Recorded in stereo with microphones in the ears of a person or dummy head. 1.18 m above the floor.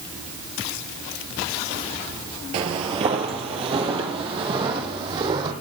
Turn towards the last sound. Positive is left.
turn(degrees=-25)  # may be behind; listen again after turning